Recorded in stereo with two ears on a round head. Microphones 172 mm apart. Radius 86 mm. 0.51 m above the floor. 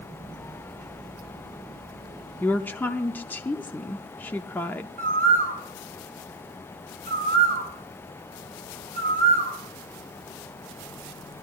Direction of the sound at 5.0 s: 50° right (ahead or behind).